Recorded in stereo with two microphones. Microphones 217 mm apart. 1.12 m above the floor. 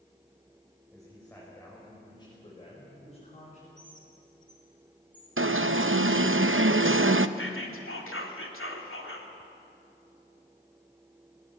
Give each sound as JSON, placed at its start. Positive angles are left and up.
{"t": 0.9, "sound": "a man speaking", "side_deg": 5, "distance_m": 5.5}
{"t": 3.8, "sound": "a bird", "side_deg": 35, "distance_m": 3.0}
{"t": 5.4, "sound": "an alarm", "side_deg": -70, "distance_m": 0.7}
{"t": 7.4, "sound": "whispering", "side_deg": 70, "distance_m": 3.0}